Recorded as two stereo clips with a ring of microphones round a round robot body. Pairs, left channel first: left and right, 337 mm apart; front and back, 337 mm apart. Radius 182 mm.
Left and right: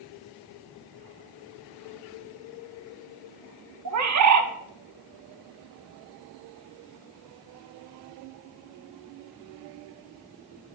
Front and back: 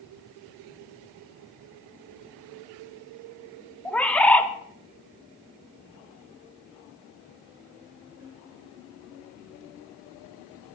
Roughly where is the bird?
Right.